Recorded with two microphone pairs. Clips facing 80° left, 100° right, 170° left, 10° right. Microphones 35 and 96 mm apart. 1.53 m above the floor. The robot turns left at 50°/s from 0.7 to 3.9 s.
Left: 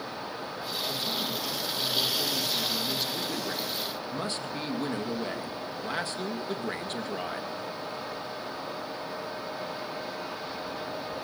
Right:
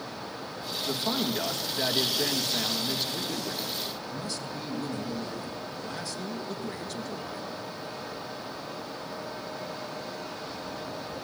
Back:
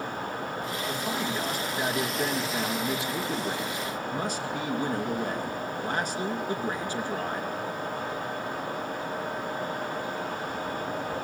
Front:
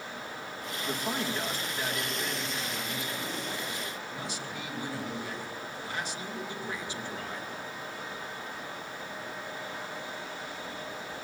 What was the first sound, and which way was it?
A man speaking, 80° right.